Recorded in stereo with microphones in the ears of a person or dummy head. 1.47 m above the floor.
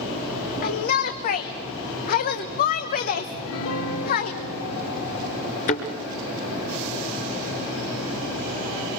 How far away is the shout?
About 1.1 m.